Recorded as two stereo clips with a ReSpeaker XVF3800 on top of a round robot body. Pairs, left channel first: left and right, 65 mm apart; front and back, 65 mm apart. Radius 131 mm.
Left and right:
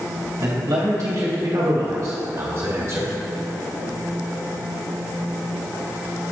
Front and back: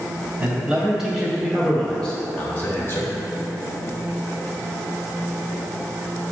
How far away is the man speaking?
About 2 m.